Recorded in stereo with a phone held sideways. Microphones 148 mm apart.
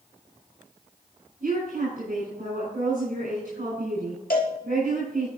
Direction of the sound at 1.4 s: 65° right (ahead or behind).